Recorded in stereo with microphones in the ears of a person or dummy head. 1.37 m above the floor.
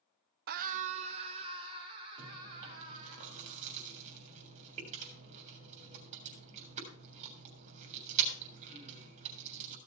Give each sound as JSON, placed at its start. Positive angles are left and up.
{"t": 0.5, "sound": "a scream", "side_deg": -50, "distance_m": 0.5}
{"t": 2.2, "sound": "chewing", "side_deg": -35, "distance_m": 3.0}